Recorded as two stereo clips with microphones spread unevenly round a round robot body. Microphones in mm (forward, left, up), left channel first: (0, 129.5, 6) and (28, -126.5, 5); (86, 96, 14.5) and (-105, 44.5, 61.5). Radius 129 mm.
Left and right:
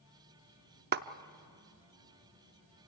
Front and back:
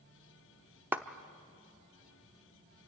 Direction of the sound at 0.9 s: 70° right.